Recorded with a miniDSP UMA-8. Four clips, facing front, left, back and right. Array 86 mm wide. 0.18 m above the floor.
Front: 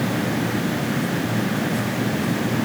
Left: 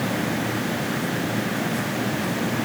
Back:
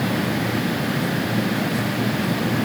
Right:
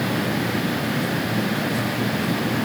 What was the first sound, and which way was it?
Only background noise.